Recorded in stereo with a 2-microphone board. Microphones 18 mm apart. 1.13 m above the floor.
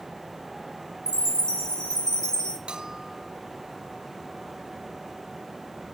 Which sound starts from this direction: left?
A chime, at 1.1 s.